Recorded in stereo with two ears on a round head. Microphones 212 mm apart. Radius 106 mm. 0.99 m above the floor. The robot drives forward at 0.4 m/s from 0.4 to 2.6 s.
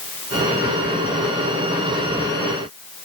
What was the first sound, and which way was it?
Only background noise.